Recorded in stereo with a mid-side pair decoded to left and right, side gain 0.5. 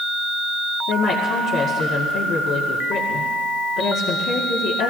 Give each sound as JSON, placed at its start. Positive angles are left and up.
{"t": 0.9, "sound": "a woman speaking", "azimuth_deg": 70, "distance_m": 2.0}